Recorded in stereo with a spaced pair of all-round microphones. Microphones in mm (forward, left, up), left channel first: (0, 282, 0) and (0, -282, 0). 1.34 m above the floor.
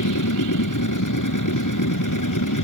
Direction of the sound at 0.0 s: 30° left (ahead or behind).